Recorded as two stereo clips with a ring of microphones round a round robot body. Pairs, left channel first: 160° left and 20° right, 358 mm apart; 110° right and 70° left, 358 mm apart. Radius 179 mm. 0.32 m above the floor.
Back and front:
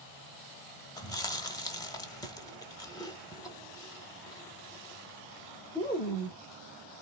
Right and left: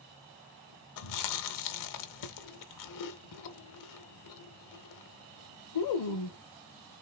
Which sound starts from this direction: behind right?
Chewing, at 1.0 s.